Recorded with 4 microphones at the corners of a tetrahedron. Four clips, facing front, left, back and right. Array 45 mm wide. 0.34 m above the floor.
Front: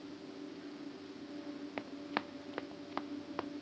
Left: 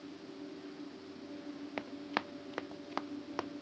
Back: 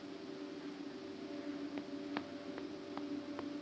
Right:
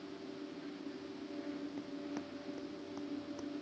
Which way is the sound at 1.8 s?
65° left.